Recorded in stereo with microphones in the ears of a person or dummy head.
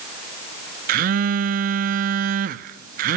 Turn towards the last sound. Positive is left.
turn(degrees=-45)  # may be behind; listen again after turning